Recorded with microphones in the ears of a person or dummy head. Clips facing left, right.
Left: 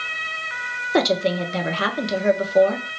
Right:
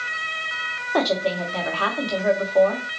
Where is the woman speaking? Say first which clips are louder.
Left 2 dB; 30° left (ahead or behind), 0.6 m.